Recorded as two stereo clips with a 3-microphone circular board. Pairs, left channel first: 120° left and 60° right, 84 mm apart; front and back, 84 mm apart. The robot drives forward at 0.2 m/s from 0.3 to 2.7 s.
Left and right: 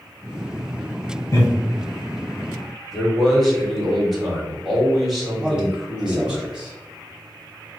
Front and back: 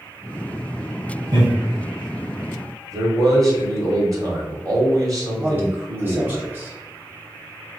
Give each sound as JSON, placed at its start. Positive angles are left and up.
{"t": 1.3, "sound": "laughter", "azimuth_deg": 165, "distance_m": 1.5}
{"t": 2.9, "sound": "a man speaking", "azimuth_deg": -150, "distance_m": 1.5}
{"t": 5.4, "sound": "a man speaking", "azimuth_deg": -135, "distance_m": 1.2}